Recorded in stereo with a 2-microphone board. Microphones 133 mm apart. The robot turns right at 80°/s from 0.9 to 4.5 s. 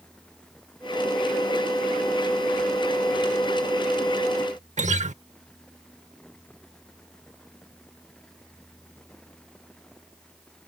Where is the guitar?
65° right (ahead or behind).